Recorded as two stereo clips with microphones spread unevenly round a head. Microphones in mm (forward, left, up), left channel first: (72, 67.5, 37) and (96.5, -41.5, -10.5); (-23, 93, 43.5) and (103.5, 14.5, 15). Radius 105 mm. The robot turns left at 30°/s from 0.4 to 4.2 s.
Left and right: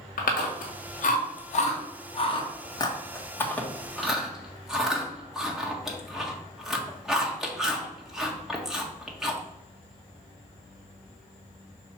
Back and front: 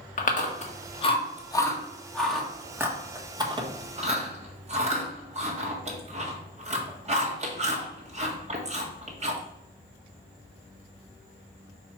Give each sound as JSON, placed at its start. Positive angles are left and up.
{"t": 0.2, "sound": "chewing", "azimuth_deg": 115, "distance_m": 1.7}